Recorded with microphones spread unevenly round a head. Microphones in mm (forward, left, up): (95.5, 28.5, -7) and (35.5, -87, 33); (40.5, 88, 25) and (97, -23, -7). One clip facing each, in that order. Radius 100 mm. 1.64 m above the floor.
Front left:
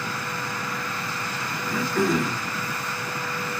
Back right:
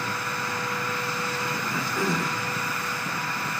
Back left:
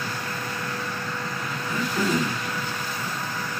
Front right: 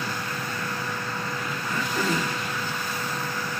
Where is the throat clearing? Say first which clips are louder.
Front left 7 dB, back left 2 dB; 60° left, 1.1 m.